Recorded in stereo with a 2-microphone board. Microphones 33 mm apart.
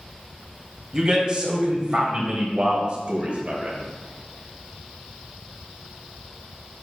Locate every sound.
0.9 s a man speaking: 25° right (ahead or behind), 2.5 m; by 3.8 s 45° right (ahead or behind), 1.5 m